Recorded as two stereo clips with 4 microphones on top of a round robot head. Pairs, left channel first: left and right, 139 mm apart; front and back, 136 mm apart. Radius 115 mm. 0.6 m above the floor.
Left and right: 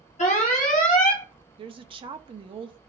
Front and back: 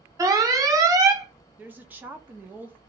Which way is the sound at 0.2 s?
120° left.